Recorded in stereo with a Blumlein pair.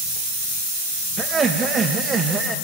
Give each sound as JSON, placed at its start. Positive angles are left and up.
{"t": 1.2, "sound": "laughter", "azimuth_deg": -20, "distance_m": 1.3}